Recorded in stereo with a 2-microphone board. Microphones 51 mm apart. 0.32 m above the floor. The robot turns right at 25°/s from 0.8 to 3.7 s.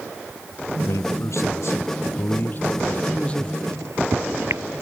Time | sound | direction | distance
0.8 | a man speaking | 95° left | ?
3.6 | a microwave | 80° right | ?